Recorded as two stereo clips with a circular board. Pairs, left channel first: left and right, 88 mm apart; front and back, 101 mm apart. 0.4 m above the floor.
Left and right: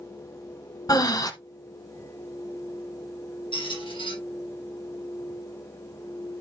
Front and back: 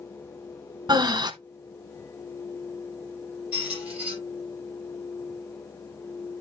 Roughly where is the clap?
No clap in this recording.